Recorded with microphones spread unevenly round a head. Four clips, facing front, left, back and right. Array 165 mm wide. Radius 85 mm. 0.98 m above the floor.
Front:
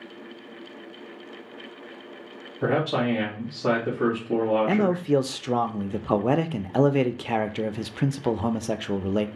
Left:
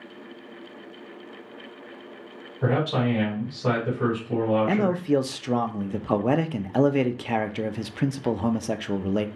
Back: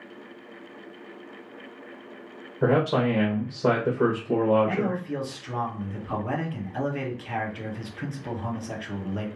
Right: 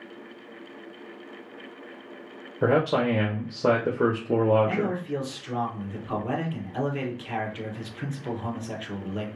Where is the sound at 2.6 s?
120° right, 1.3 m.